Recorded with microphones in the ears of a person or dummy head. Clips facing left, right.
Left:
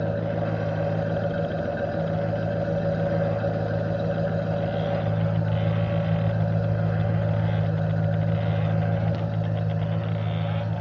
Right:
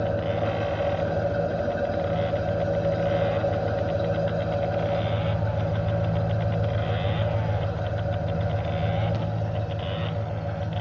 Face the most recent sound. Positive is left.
turn(degrees=20)  # may be behind; listen again after turning